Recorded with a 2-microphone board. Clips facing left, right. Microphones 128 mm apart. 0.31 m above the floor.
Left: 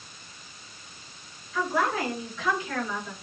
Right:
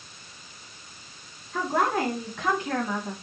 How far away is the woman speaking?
About 4.5 m.